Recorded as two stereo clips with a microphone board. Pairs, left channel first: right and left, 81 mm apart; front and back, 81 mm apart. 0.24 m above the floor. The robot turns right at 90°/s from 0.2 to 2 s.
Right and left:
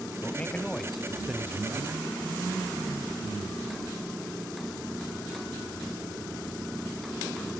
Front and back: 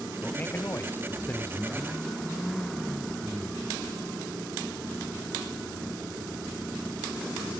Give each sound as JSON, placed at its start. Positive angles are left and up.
{"t": 0.2, "sound": "a man speaking", "azimuth_deg": -60, "distance_m": 1.2}